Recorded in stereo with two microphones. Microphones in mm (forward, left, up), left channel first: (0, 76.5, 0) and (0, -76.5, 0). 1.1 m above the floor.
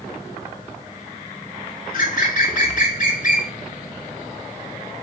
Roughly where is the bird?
Left.